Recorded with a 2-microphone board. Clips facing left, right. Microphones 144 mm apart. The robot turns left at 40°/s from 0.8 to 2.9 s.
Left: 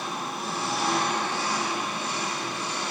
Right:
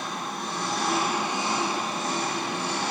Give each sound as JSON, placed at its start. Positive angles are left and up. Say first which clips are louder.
{"t": 0.0, "sound": "an engine running", "louder": "even", "azimuth_deg": 5, "distance_m": 2.5}